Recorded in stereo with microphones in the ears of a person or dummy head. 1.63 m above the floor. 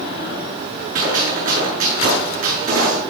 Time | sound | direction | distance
0.9 | a gunshot | 50° right (ahead or behind) | 6.5 m